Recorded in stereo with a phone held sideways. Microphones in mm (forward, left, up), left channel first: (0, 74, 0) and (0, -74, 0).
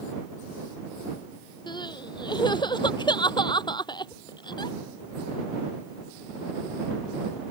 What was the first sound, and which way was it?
Crying, 30° left (ahead or behind).